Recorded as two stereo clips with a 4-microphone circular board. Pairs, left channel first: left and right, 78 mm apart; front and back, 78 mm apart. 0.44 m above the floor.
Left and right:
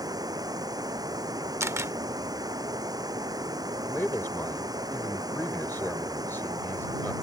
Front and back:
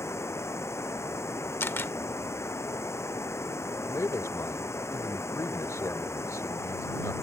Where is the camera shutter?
50° right.